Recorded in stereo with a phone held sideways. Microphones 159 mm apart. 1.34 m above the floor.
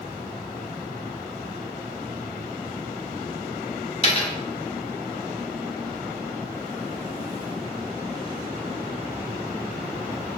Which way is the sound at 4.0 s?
35° left (ahead or behind).